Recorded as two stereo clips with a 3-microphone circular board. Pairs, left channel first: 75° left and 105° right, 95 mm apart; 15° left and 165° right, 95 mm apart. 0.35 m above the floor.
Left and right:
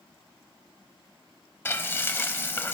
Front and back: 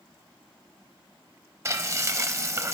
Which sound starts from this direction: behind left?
Frying, at 1.6 s.